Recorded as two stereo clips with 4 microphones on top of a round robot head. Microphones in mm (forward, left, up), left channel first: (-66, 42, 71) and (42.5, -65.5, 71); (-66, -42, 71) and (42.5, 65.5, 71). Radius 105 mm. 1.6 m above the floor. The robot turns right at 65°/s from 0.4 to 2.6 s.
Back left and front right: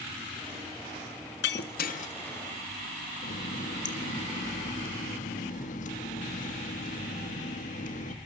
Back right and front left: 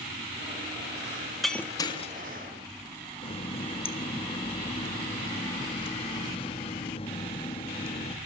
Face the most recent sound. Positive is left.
turn(degrees=170)